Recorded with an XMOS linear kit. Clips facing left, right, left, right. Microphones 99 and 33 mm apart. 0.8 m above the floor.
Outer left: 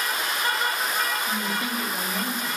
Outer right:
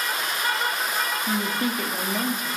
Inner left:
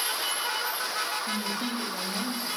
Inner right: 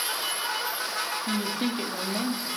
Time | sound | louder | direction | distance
1.3 | a woman speaking | outer right 3 dB, inner right 2 dB | 45° right (ahead or behind) | 1.5 m